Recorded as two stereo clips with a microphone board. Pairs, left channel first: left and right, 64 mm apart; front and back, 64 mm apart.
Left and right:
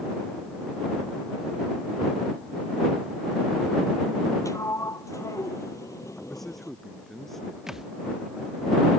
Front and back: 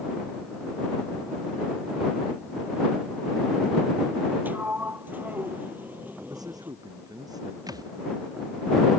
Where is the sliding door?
120° left.